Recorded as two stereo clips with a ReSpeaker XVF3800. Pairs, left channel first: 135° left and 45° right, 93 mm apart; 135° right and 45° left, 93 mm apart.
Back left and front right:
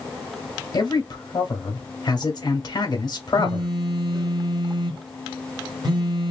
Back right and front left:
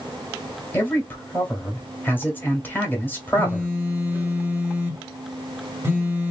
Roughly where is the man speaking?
Behind.